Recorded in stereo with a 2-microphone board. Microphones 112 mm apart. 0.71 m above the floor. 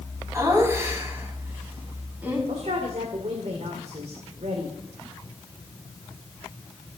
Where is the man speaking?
70° right (ahead or behind), 2 m.